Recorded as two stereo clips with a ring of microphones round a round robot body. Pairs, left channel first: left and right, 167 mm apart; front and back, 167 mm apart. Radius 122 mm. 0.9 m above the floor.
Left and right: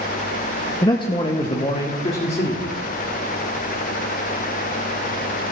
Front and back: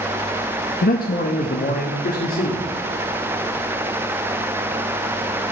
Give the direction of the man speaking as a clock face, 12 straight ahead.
11 o'clock.